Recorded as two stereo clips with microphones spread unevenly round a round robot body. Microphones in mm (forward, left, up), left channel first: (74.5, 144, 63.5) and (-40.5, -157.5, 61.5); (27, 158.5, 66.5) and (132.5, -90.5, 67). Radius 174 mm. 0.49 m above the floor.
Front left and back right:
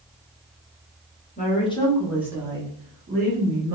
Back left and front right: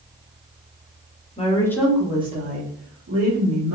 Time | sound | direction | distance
1.4 | a woman speaking | 85° left | 0.9 m